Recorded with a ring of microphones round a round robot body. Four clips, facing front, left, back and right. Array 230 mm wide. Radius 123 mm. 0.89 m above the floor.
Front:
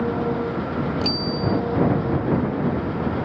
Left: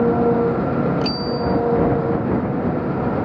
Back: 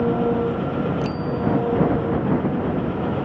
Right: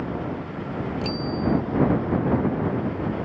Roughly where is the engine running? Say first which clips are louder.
Left 14 dB, back 3 dB; left.